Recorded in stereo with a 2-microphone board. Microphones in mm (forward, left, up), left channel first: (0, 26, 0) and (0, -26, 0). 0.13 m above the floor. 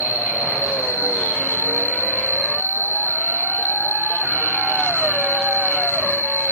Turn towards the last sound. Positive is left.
turn(degrees=55)  # may be behind; listen again after turning